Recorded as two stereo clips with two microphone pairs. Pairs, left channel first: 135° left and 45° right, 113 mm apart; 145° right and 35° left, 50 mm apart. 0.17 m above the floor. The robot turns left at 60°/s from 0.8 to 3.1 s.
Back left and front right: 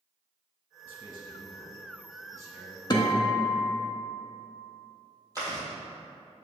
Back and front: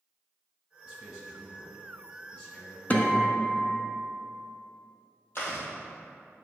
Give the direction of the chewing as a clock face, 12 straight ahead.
3 o'clock.